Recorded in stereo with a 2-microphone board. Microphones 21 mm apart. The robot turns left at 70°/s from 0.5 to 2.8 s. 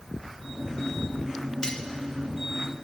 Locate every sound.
1.6 s cutlery clinking: 30° left (ahead or behind), 0.6 m; by 1.8 s 40° left (ahead or behind), 0.6 m